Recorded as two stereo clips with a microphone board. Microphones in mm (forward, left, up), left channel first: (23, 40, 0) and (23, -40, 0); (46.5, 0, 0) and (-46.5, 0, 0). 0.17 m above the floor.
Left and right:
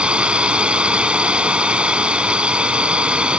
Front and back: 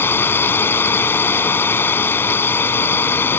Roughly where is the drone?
Ahead right.